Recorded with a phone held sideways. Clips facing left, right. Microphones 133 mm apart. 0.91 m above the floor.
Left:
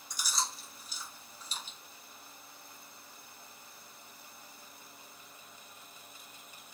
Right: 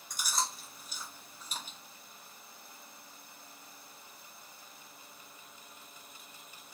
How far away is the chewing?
About 0.9 m.